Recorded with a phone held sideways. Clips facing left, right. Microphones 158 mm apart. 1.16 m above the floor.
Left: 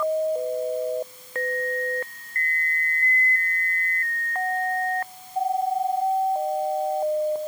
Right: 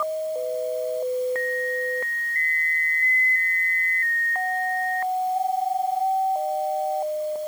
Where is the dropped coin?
No dropped coin in this recording.